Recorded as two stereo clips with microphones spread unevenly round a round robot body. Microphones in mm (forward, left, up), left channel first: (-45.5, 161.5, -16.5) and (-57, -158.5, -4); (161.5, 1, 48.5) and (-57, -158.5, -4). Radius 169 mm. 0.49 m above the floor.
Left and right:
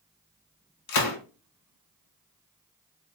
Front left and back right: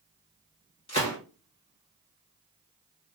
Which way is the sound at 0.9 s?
105° left.